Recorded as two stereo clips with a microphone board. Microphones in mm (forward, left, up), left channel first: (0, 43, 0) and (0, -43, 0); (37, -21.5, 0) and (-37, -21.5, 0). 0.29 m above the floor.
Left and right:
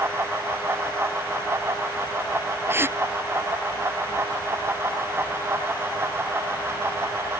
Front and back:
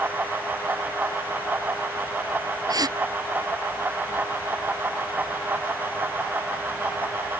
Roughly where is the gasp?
Behind right.